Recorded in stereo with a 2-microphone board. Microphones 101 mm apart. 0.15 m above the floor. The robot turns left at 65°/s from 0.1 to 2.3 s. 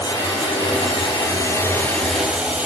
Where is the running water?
135° left, 3.5 m; by 2.7 s 10° right, 3.5 m.